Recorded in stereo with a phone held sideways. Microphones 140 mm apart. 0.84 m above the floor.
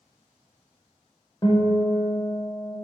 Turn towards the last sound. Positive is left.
turn(degrees=30)  # may be behind; listen again after turning